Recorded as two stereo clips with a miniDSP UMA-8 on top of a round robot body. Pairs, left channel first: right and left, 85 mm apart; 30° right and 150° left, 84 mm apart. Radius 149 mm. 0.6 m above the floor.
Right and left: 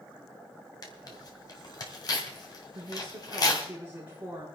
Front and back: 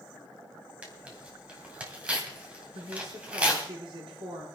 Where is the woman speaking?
165° left, 6.5 m.